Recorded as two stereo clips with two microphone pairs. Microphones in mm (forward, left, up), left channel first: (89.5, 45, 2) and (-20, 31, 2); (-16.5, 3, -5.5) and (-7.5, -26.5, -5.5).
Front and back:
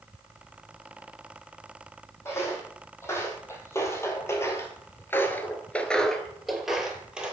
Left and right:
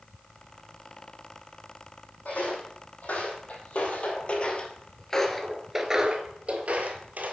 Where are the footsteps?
75° left, 2 m; by 7.3 s 90° right, 1.1 m.